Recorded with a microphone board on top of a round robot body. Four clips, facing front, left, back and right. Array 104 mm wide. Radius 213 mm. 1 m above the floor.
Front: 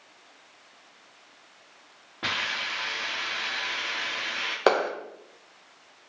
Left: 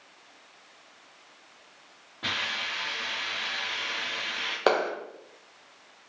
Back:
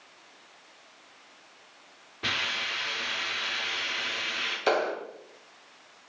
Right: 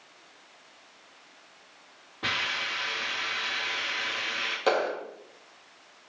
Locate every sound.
2.2 s a hiss: 5° right, 1.5 m
4.7 s a clap: 30° left, 0.6 m